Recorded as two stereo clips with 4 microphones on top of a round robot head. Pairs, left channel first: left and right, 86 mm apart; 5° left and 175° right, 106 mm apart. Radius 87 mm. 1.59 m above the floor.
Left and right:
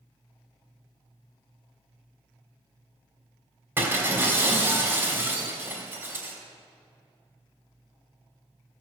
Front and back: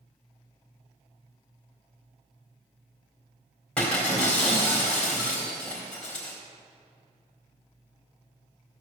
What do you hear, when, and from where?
3.8 s breaking glass: 65° right, 1.4 m